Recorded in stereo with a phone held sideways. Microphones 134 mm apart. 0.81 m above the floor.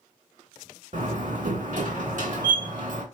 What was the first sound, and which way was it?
A door slam, 60° right (ahead or behind).